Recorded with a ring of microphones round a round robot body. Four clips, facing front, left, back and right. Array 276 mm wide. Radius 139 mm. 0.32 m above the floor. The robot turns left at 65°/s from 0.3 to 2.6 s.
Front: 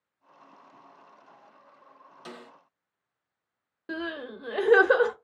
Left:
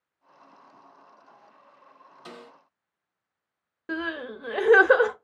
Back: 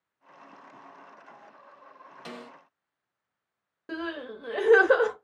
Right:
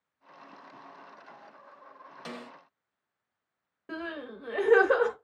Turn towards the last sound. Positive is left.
turn(degrees=75)